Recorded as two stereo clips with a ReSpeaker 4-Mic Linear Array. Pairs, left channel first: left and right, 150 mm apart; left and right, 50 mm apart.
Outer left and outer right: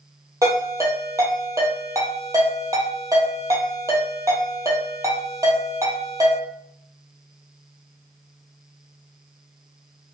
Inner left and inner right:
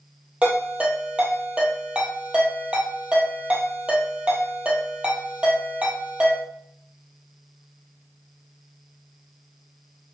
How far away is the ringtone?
About 1.5 m.